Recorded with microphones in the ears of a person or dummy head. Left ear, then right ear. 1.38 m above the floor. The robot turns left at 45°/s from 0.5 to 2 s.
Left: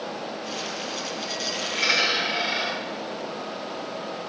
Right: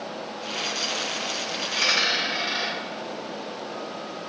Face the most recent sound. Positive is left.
turn(degrees=-55)  # may be behind; listen again after turning